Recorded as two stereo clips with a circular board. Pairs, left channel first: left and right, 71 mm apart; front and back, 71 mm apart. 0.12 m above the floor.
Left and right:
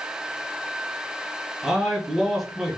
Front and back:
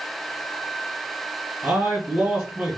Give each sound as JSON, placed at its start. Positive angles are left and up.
{"t": 1.6, "sound": "a man speaking", "azimuth_deg": 175, "distance_m": 1.1}